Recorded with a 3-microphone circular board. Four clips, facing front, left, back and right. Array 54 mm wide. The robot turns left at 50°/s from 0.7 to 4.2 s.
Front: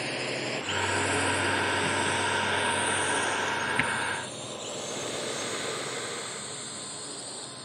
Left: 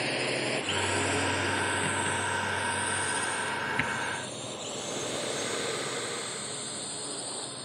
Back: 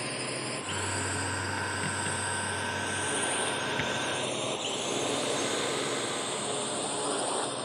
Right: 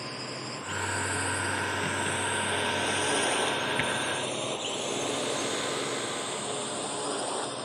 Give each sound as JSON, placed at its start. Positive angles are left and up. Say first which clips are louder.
{"t": 0.0, "sound": "a drone", "louder": "left 7 dB, front 3 dB", "azimuth_deg": 75}